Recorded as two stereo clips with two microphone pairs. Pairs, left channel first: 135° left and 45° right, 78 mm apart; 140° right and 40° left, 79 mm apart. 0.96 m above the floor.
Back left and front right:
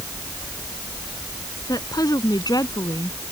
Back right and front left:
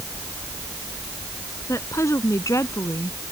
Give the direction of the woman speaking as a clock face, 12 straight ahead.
6 o'clock.